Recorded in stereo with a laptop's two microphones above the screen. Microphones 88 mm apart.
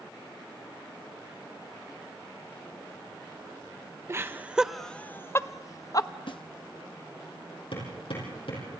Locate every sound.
4.1 s laughter: 30° right (ahead or behind), 0.6 m; by 6.1 s 45° left (ahead or behind), 0.9 m
6.3 s a snare drum: 65° left (ahead or behind), 1.2 m
7.7 s hammering: 85° left, 7.5 m